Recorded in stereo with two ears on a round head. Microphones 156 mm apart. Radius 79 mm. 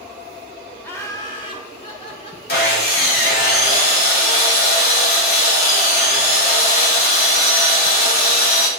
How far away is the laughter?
About 1.1 m.